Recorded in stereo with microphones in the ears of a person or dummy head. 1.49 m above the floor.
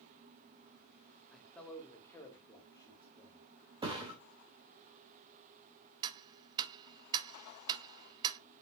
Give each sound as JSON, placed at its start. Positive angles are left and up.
{"t": 1.3, "sound": "a man speaking", "side_deg": 5, "distance_m": 1.6}
{"t": 3.8, "sound": "a thud", "side_deg": -25, "distance_m": 2.5}
{"t": 6.0, "sound": "ticking", "side_deg": -25, "distance_m": 0.6}